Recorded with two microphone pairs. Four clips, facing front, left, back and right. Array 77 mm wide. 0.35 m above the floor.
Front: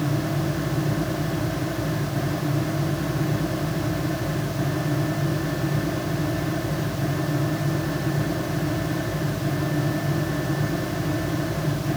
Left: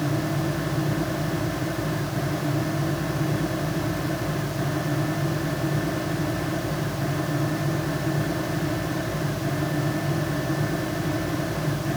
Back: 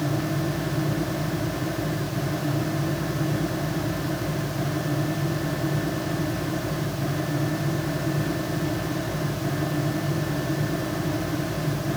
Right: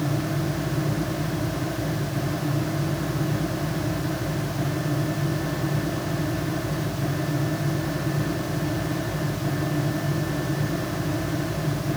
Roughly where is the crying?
No crying in this recording.